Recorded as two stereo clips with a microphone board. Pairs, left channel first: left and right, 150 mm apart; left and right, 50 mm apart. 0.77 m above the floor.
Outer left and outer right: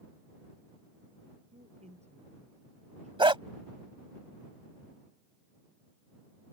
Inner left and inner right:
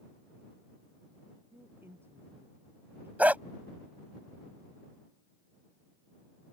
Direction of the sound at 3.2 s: 35° right (ahead or behind).